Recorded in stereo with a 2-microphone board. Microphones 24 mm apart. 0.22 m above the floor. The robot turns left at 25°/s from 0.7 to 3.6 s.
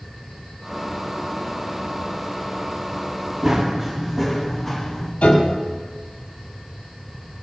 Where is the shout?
I don't hear a shout.